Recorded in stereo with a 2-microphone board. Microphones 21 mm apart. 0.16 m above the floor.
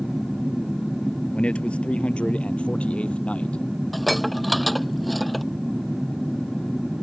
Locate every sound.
1.3 s a man speaking: 65° left (ahead or behind); by 3.6 s 75° left (ahead or behind)
3.9 s dishes clattering: 5° left (ahead or behind)